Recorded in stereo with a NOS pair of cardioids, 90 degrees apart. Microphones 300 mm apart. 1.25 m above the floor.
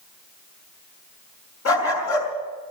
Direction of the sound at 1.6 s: 50° left.